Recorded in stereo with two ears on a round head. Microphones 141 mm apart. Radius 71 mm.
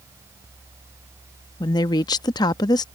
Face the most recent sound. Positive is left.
turn(degrees=25)  # may be behind; listen again after turning